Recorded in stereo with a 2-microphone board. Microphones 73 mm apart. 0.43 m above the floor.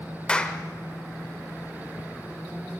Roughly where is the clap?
Centre.